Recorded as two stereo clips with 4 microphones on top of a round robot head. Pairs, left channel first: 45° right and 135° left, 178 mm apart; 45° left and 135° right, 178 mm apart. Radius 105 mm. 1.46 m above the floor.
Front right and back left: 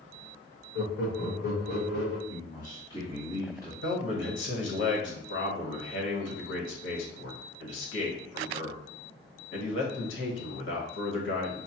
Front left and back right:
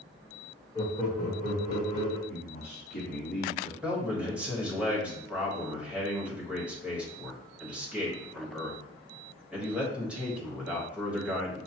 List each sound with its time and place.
0.8 s laughter: 20° right, 0.6 m; by 2.2 s 10° right, 2.5 m
2.3 s a man speaking: 10° left, 1.6 m
3.8 s a man speaking: 55° right, 1.3 m